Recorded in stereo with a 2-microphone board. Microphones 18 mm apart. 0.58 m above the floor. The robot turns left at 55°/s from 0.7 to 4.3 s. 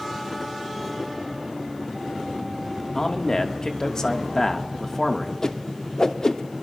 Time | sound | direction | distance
3.0 | a man speaking | 125° left | 1.1 m
5.4 | a whoosh | 35° left (ahead or behind) | 0.6 m